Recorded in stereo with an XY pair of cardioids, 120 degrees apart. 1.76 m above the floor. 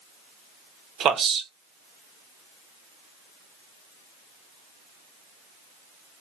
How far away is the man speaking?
About 1.0 m.